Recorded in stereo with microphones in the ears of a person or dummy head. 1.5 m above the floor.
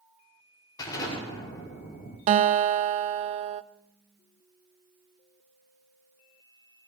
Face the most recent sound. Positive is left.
turn(degrees=-45)  # may be behind; listen again after turning